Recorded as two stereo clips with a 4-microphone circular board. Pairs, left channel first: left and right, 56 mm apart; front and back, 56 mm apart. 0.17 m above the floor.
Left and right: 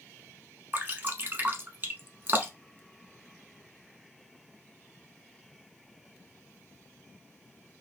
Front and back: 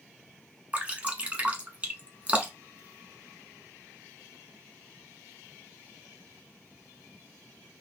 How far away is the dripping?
About 0.9 m.